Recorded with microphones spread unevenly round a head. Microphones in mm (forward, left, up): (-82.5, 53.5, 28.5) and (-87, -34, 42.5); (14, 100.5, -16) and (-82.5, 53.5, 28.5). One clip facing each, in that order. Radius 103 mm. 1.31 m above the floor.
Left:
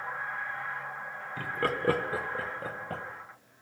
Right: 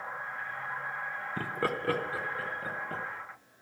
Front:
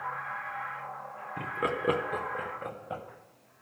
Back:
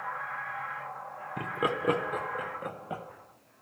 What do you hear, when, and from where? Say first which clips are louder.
1.4 s laughter: left 2 dB, back 1 dB; 60° right, 0.6 m; by 3.0 s 95° left, 1.8 m